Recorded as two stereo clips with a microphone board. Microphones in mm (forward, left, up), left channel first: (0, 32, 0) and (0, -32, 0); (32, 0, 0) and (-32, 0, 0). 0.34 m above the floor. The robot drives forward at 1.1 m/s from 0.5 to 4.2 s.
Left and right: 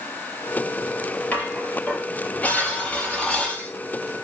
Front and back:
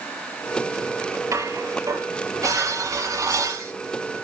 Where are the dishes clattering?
155° left, 5.5 m; by 3.7 s 165° left, 8 m.